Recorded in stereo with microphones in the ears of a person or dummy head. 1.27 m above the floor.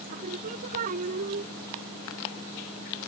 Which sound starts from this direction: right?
Singing, at 0.1 s.